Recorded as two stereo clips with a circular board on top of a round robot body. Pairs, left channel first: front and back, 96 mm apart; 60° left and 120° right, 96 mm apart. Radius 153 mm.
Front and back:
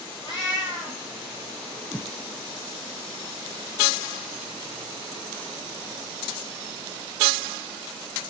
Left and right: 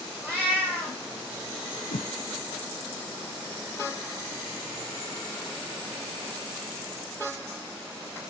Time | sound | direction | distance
0.2 | a cat meowing | 45° right | 2.0 m
1.9 | a whoosh | 90° left | 0.8 m